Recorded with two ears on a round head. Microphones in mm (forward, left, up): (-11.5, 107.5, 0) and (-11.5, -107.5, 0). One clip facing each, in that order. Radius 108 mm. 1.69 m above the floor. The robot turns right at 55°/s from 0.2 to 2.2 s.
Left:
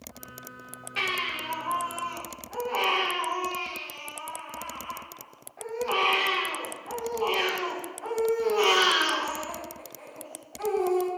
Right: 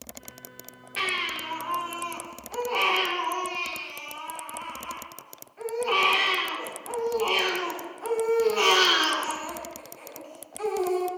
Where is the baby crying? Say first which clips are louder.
Even; 170° left, 3 m; by 11.1 s 120° right, 3 m.